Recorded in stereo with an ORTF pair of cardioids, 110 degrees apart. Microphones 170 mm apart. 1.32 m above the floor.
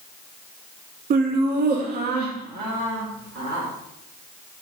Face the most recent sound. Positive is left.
turn(degrees=-75)